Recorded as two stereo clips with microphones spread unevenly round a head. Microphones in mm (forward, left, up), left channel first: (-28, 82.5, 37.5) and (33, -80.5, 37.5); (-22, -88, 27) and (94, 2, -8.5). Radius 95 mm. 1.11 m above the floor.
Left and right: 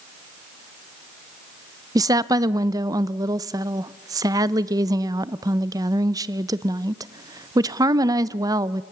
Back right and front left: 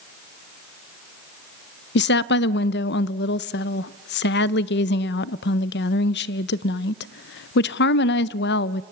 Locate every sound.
1.9 s a woman speaking: 140° right, 0.6 m